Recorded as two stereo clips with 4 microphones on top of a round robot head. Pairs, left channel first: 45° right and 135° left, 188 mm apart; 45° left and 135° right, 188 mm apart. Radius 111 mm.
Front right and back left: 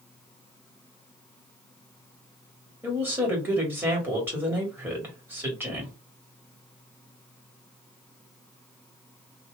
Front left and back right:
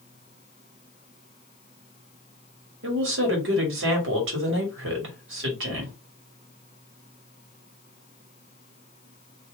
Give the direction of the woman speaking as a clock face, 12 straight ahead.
5 o'clock.